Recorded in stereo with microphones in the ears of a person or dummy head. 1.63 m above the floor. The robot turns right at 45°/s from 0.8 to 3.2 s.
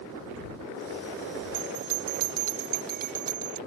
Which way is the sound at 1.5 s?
60° right (ahead or behind).